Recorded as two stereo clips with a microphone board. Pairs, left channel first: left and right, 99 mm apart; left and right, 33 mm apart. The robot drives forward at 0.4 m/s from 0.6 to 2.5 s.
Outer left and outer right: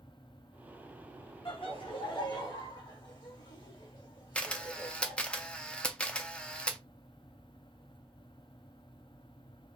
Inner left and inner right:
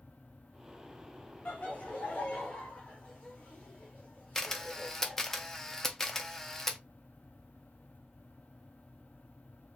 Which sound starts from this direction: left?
Laughter, at 1.4 s.